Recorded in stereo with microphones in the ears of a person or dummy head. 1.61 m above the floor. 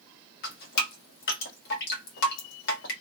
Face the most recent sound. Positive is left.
turn(degrees=60)  # may be behind; listen again after turning